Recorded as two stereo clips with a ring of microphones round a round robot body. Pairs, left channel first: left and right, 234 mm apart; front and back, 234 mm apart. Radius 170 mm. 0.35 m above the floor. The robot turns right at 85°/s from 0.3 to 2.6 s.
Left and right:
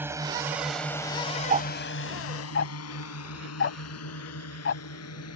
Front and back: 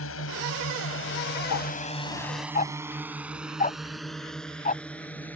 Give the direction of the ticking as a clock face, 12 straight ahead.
1 o'clock.